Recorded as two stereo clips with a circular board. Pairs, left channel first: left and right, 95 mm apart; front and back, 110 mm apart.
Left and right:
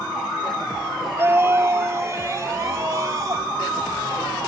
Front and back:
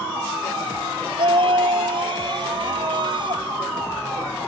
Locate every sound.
1.2 s a scream: 155° right; by 3.5 s 140° right